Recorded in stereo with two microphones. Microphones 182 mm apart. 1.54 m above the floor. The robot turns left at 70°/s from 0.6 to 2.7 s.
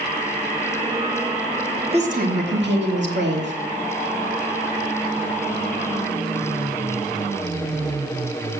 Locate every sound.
1.9 s a woman speaking: 35° right, 2.0 m; by 3.5 s 90° right, 2.0 m